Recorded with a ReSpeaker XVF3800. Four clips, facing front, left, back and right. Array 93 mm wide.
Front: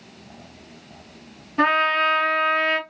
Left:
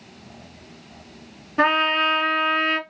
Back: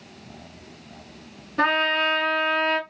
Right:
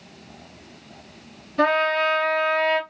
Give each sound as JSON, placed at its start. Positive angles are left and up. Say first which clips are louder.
{"t": 1.6, "sound": "a trumpet", "louder": "even, front 3 dB", "azimuth_deg": 65, "distance_m": 1.5}